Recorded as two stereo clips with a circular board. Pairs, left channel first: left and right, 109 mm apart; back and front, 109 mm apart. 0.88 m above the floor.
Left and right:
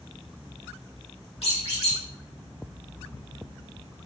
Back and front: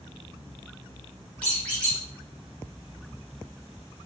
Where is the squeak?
100° left, 1.3 m.